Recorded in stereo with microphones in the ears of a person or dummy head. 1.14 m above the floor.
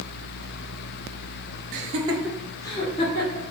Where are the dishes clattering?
No dishes clattering in this recording.